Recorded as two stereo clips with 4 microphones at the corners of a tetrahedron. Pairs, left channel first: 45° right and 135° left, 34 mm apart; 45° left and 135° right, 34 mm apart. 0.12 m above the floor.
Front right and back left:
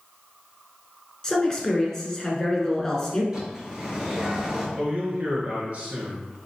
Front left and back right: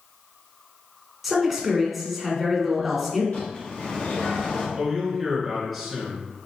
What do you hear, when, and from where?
1.2 s a man speaking: 50° right, 1.1 m
3.3 s a bird: 65° left, 1.6 m
4.8 s a man speaking: 140° left, 1.6 m